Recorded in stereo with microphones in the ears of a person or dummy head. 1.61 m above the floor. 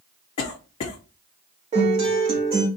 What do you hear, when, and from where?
0.4 s a cough: 30° left (ahead or behind), 0.7 m
1.7 s a guitar: 35° right (ahead or behind), 2 m